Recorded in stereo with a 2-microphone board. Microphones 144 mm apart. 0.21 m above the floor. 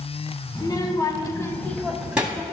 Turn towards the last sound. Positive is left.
turn(degrees=-15)  # may be behind; listen again after turning